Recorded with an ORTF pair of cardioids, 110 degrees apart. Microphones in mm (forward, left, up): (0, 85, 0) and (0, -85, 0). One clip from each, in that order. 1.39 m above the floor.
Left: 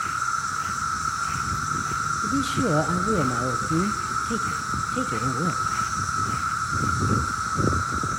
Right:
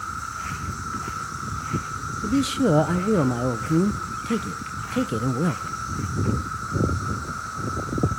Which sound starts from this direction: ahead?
A man speaking, at 2.2 s.